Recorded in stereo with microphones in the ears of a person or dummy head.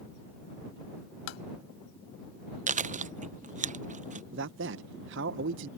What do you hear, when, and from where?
1.3 s tapping: 80° left
2.7 s chewing: 40° right (ahead or behind)
4.3 s a man speaking: 65° right (ahead or behind)